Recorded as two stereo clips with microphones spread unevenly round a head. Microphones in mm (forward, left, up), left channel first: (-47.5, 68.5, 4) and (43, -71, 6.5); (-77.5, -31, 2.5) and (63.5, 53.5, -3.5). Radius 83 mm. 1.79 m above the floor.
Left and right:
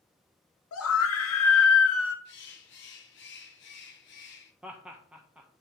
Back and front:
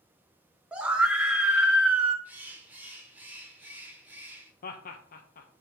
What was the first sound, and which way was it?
A scream, 115° left.